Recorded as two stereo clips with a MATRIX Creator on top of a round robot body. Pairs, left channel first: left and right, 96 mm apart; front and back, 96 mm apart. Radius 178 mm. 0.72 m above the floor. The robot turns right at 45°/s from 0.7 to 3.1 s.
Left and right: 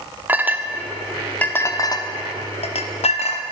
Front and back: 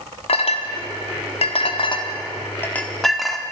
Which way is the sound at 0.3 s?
15° right.